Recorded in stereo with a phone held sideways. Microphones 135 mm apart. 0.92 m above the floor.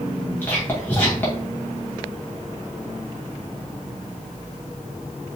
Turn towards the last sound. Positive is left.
turn(degrees=15)  # may be behind; listen again after turning